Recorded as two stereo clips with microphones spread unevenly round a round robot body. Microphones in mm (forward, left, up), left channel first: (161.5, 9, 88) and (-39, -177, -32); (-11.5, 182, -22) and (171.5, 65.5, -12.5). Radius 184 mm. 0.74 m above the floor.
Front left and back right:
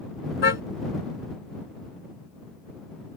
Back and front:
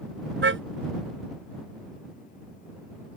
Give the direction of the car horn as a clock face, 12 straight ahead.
12 o'clock.